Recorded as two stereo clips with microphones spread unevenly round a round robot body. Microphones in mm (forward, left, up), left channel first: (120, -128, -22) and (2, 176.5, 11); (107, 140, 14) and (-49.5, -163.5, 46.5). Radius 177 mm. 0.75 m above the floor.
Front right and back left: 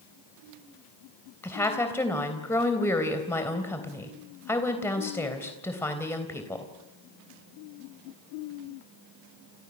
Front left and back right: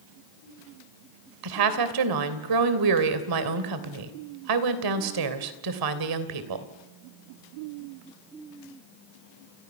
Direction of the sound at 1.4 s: 155° right.